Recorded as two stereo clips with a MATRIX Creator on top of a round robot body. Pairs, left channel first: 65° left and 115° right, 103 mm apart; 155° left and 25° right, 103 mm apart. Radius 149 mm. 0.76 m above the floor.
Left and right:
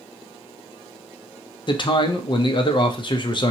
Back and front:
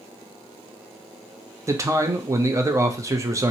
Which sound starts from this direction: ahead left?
A man speaking, at 1.7 s.